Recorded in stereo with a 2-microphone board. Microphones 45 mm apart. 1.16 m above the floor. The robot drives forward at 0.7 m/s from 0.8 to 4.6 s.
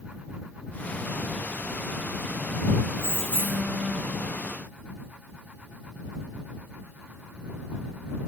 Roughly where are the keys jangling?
Right.